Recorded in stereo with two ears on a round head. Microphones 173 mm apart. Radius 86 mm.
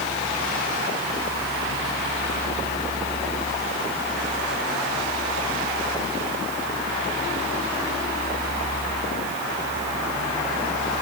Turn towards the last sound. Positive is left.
No sound to turn to.